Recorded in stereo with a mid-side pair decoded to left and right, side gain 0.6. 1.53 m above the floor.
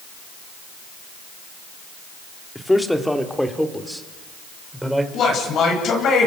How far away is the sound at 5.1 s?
About 10 m.